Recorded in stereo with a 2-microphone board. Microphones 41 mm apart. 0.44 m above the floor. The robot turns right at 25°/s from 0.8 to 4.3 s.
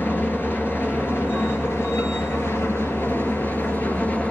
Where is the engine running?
60° left, 2 m; by 4.3 s 145° left, 2 m.